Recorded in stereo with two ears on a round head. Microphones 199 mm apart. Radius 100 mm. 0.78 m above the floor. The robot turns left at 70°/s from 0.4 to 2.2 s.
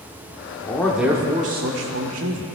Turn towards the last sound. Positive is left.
turn(degrees=-90)